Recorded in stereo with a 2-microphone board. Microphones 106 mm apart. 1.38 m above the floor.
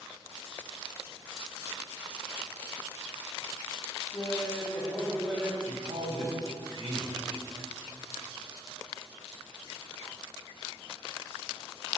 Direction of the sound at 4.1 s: 35° left (ahead or behind).